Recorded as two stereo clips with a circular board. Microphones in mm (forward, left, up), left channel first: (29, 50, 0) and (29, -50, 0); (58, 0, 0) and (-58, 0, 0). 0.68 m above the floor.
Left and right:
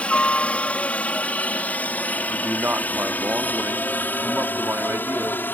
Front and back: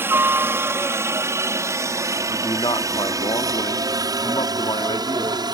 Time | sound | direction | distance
0.0 | a helicopter | 145° left | ?
2.3 | a man speaking | 25° right | ?